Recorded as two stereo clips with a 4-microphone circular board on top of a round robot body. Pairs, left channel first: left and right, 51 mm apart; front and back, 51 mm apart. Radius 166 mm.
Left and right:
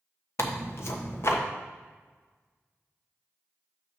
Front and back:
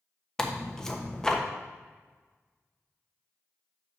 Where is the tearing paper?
80° left, 1.2 m.